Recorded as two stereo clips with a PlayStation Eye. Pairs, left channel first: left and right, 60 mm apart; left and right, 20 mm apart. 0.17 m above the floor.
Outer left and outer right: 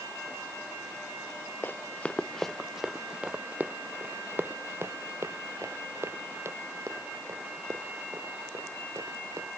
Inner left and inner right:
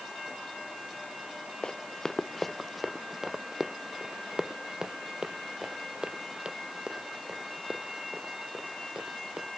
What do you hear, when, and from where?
1.6 s running footsteps: 35° left (ahead or behind); by 9.5 s 55° right (ahead or behind)